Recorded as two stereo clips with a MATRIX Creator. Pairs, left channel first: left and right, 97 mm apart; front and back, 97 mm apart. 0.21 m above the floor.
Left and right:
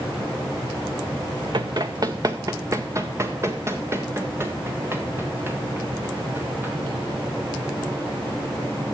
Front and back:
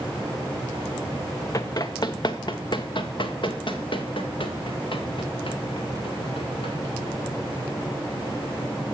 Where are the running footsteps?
50° right, 0.7 m; by 6.8 s 20° right, 3.5 m.